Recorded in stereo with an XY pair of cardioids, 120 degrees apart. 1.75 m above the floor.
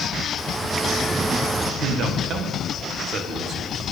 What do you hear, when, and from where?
0.4 s a bird: 25° right, 0.8 m
1.8 s a man speaking: 55° right, 1.7 m